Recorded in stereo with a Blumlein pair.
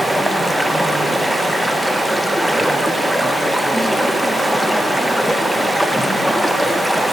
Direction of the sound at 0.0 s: Straight ahead.